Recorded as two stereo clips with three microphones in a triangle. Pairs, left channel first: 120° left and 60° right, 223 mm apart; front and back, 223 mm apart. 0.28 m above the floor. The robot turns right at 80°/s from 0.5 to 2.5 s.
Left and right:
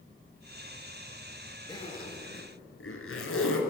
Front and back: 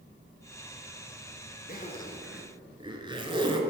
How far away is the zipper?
About 1.2 m.